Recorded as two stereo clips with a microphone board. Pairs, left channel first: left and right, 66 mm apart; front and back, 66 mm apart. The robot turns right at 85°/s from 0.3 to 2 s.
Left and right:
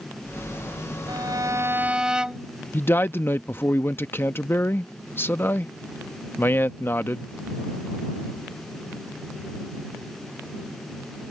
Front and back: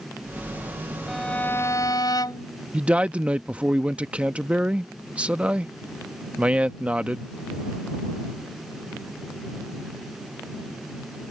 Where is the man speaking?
120° left.